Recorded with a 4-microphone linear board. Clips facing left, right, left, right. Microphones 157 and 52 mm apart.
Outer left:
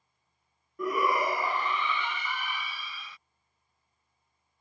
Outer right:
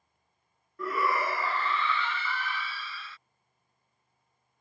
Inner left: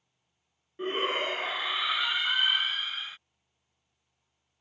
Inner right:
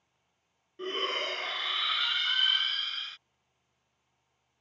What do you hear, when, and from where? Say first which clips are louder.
0.8 s a shout: outer left 2 dB, inner left 3 dB; 15° left (ahead or behind)